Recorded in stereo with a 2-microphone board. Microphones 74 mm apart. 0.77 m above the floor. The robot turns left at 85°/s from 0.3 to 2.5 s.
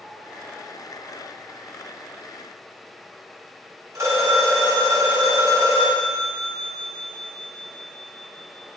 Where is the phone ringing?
40° right (ahead or behind), 1.5 m.